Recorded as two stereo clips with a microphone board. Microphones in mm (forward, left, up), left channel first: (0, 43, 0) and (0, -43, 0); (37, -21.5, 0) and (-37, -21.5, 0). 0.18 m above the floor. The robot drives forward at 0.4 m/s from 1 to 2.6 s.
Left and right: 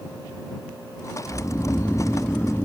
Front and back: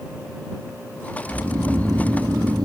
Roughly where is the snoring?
Behind left.